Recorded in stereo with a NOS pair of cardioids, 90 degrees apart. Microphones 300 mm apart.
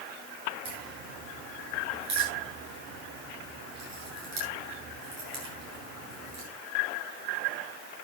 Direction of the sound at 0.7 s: 65° right.